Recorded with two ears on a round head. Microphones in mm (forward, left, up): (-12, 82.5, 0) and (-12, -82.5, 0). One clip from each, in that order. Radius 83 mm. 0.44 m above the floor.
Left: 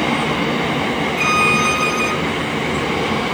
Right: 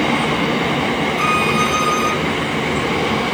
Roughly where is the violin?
Centre.